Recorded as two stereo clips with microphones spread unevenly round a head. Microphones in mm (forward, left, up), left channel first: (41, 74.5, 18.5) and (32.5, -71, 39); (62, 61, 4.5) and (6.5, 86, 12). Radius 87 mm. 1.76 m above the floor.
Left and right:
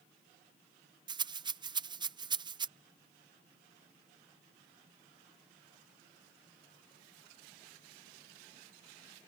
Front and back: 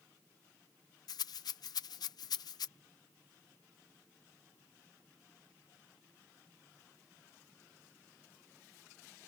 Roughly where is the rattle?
Ahead right.